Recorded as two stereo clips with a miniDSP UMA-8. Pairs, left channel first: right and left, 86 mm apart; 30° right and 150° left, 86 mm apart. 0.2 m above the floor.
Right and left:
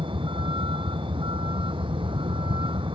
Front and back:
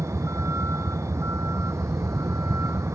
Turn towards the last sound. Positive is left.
turn(degrees=95)